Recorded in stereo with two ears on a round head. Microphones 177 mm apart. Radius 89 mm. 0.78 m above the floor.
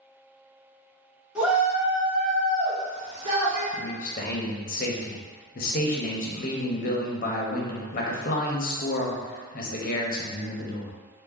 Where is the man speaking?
45° left (ahead or behind), 0.7 m.